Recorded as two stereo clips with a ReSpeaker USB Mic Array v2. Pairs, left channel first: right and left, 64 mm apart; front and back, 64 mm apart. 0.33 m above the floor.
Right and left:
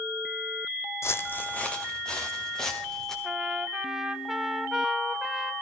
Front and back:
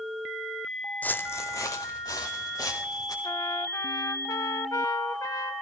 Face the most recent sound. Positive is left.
turn(degrees=5)